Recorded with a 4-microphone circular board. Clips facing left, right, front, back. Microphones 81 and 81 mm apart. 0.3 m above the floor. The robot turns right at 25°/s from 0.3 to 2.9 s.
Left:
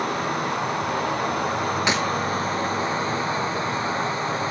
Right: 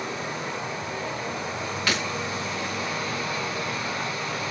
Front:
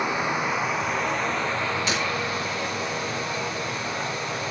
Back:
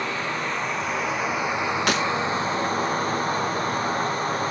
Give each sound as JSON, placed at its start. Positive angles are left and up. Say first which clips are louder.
{"t": 0.0, "sound": "running water", "louder": "left 7 dB, front 2 dB", "azimuth_deg": 75, "distance_m": 2.0}
{"t": 1.9, "sound": "breaking glass", "louder": "left 2 dB, back 4 dB", "azimuth_deg": 160, "distance_m": 4.0}